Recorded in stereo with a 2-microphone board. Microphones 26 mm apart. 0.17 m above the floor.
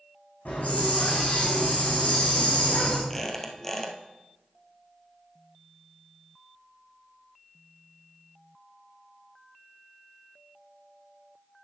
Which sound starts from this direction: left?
A hiss, at 0.5 s.